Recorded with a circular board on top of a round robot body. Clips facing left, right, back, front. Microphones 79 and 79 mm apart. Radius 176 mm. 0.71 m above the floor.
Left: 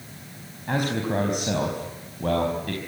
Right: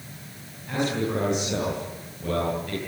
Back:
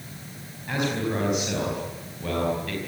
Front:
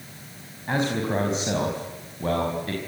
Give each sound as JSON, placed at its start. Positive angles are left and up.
{"t": 0.7, "sound": "a man speaking", "azimuth_deg": 60, "distance_m": 5.0}